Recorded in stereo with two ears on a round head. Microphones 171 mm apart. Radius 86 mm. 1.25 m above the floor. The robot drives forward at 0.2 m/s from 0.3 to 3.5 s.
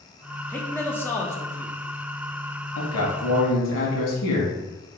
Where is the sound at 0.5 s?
10° left (ahead or behind), 0.7 m; by 1.8 s 15° left (ahead or behind), 0.5 m.